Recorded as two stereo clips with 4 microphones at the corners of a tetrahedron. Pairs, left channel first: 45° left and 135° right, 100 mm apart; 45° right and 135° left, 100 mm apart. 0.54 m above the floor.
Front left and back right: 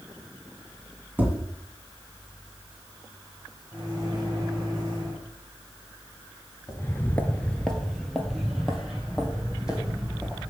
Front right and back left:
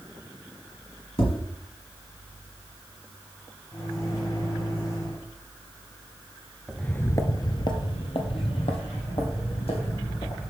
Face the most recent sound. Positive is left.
turn(degrees=-55)